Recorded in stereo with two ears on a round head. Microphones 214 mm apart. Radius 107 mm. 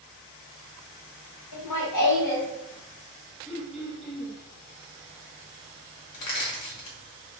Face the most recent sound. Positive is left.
turn(degrees=85)